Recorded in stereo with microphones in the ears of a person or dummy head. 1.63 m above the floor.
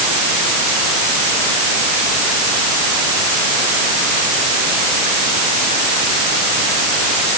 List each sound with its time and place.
Only background noise.